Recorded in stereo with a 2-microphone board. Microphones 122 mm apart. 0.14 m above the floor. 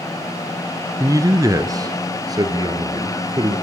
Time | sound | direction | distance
1.0 | a man speaking | 30° right (ahead or behind) | 1.7 m